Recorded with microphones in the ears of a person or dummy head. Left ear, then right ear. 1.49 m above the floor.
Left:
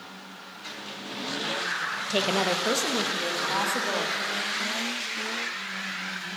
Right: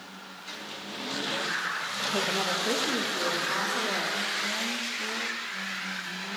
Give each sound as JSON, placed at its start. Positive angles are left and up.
{"t": 2.1, "sound": "a woman speaking", "side_deg": 80, "distance_m": 0.6}